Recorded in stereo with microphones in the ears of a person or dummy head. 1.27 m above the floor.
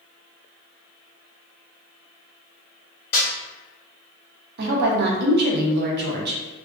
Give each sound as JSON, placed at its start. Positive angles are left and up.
{"t": 3.1, "sound": "a snare drum", "side_deg": 25, "distance_m": 1.0}
{"t": 4.6, "sound": "a woman speaking", "side_deg": -65, "distance_m": 0.7}